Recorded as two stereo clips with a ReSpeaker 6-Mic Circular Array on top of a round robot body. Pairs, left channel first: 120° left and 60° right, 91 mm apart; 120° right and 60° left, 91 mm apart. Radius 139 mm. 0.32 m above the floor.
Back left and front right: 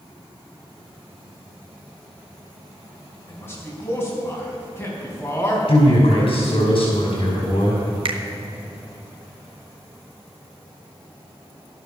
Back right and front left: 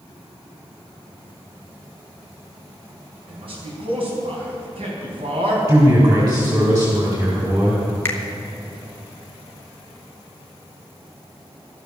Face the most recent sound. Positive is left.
turn(degrees=-55)